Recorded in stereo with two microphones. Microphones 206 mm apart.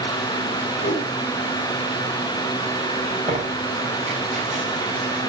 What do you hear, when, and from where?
0.8 s a whoosh: 50° left (ahead or behind), 1.9 m
3.3 s tearing paper: 30° right (ahead or behind), 4.5 m